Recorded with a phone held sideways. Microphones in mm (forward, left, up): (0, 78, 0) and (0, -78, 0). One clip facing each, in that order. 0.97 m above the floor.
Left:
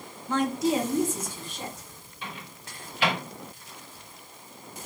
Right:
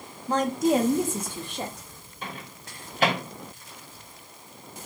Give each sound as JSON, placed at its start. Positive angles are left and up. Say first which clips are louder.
{"t": 0.3, "sound": "a woman speaking", "louder": "right 3 dB", "side_deg": -35, "distance_m": 0.6}
{"t": 2.2, "sound": "a microwave", "louder": "right 2 dB", "side_deg": -45, "distance_m": 1.1}